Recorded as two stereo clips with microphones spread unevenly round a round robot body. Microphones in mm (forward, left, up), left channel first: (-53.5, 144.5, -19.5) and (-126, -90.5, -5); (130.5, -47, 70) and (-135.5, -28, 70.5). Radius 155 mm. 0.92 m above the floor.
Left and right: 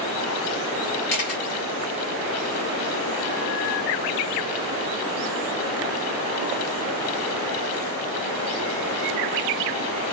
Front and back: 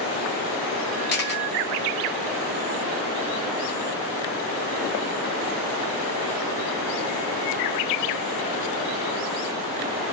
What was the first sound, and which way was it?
A camera shutter, 50° left.